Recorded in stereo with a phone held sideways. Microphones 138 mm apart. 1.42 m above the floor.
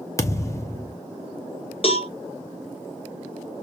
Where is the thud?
20° left (ahead or behind), 0.9 m.